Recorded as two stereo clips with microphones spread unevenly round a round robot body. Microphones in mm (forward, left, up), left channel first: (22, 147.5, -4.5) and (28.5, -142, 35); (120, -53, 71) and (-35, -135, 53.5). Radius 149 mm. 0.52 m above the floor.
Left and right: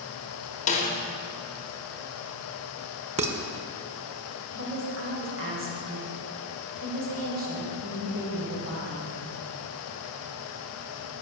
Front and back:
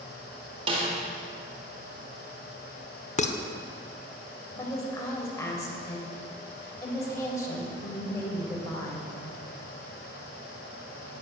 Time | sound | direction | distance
0.7 | a snare drum | 150° left | 1.3 m
3.2 | dishes clattering | 20° right | 1.0 m
4.5 | a woman speaking | 45° right | 3 m